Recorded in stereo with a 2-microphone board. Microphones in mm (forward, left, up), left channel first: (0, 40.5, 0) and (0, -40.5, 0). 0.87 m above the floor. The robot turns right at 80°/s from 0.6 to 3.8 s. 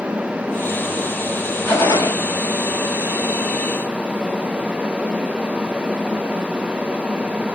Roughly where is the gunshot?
Ahead.